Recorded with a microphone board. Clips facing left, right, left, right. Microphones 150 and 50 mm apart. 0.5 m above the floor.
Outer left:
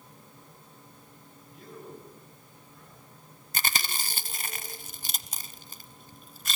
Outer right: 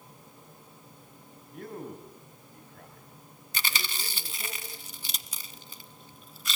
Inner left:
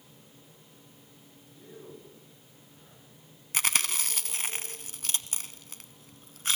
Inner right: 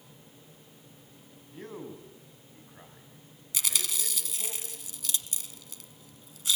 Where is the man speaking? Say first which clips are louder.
Outer right 5 dB, inner right 6 dB; 60° right (ahead or behind), 4.5 m.